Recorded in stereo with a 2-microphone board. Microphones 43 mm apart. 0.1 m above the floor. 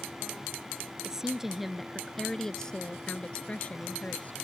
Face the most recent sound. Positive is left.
turn(degrees=40)  # may be behind; listen again after turning